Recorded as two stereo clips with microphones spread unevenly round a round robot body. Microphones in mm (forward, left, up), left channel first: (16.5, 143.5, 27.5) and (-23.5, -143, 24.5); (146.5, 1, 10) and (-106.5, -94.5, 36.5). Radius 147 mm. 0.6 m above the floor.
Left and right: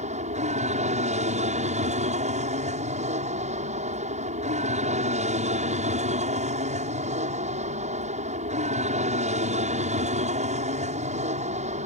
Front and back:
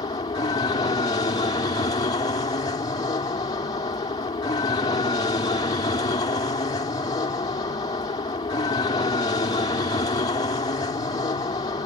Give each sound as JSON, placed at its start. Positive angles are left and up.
{"t": 0.0, "sound": "an aircraft", "azimuth_deg": -40}